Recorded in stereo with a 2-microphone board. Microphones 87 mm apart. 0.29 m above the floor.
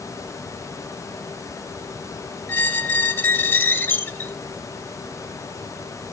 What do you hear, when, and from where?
2.5 s a squeak: 25° left (ahead or behind), 0.6 m